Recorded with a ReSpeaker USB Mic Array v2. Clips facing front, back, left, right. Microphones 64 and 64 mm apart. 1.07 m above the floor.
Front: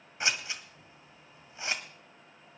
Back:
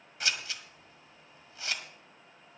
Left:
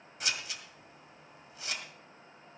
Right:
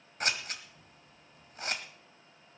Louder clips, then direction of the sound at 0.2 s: Front 2 dB, right 4 dB; 65° right.